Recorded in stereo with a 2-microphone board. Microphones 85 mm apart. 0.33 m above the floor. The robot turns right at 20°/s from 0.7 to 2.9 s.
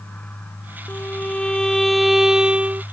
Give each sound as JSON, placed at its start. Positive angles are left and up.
{"t": 0.9, "sound": "a violin", "azimuth_deg": 160}